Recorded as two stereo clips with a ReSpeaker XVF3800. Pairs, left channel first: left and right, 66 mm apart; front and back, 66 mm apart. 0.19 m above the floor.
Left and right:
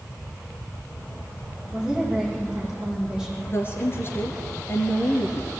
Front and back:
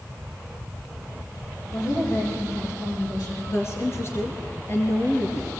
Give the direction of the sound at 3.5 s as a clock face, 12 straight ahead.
11 o'clock.